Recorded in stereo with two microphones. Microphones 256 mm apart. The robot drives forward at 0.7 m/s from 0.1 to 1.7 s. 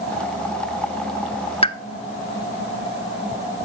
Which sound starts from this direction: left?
A pop, at 1.6 s.